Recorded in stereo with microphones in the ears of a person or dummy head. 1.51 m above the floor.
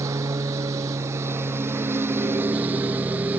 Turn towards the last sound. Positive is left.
turn(degrees=-10)  # may be behind; listen again after turning